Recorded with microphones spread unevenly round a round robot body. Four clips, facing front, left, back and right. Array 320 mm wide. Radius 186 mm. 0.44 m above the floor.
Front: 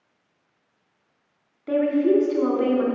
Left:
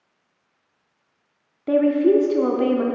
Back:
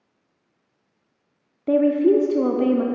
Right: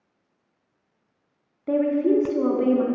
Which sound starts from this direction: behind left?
A woman speaking, at 1.7 s.